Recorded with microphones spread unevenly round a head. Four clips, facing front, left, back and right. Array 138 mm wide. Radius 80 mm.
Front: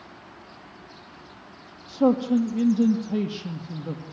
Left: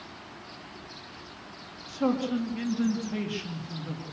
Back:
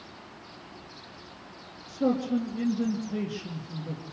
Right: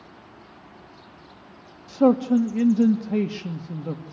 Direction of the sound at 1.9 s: 65° right.